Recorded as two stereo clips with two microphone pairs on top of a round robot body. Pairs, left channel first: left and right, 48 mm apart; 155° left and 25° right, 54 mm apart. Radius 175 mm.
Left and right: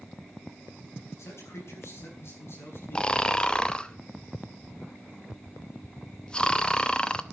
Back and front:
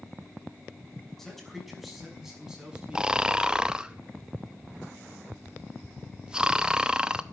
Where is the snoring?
35° left, 1.2 m.